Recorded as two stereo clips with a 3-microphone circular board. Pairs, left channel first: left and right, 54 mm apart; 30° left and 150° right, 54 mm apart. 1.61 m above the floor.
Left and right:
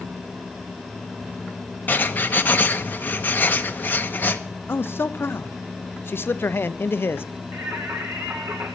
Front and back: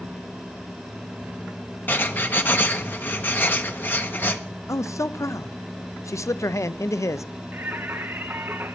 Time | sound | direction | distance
1.9 | writing | 55° left | 0.9 m
4.7 | a man speaking | 45° left | 0.5 m
7.5 | singing | 110° right | 1.4 m